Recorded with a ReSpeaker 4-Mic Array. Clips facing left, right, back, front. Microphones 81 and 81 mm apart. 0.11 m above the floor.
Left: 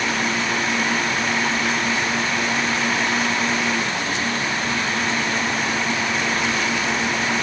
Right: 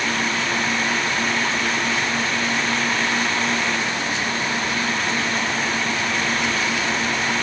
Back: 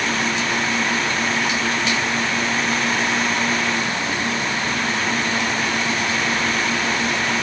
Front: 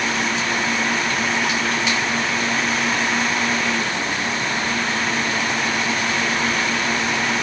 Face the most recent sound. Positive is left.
No sound to turn to.